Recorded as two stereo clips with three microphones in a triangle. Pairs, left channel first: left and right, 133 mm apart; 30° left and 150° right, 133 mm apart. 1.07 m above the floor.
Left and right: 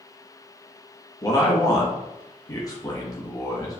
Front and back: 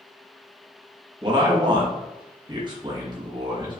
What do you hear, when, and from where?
1.2 s a man speaking: 155° left, 1.2 m